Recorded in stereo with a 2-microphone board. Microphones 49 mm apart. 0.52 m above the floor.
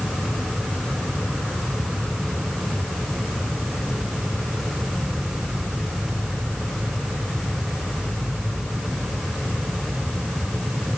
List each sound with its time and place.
Only background noise.